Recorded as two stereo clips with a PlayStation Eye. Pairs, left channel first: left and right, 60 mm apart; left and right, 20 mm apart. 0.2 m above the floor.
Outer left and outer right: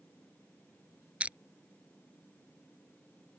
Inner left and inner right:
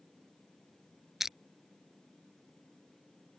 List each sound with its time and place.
1.2 s crushing: 20° right (ahead or behind)